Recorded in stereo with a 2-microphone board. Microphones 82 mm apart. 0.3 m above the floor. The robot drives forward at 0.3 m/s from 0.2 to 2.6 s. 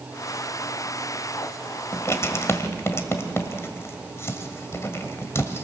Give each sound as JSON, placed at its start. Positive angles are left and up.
{"t": 1.9, "sound": "writing", "side_deg": 35, "distance_m": 1.7}